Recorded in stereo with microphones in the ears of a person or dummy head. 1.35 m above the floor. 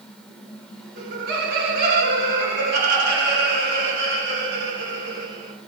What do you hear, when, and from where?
1.0 s laughter: 50° right (ahead or behind), 1.2 m; by 5.5 s 65° right (ahead or behind), 4.5 m